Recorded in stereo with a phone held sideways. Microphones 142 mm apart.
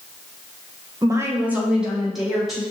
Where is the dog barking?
No dog barking in this recording.